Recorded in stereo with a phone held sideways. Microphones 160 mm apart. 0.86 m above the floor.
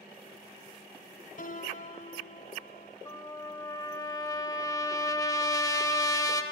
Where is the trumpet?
25° left (ahead or behind), 1.1 m.